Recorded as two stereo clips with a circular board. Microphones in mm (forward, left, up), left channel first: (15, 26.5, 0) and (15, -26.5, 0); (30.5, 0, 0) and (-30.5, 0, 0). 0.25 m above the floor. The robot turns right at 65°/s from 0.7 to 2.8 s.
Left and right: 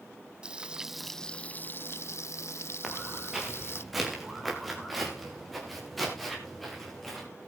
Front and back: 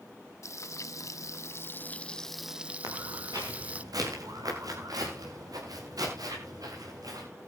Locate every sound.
0.4 s frying: 20° right, 0.6 m; by 3.8 s 115° left, 0.6 m
2.8 s footsteps: 175° right, 6 m; by 7.3 s 175° left, 8.5 m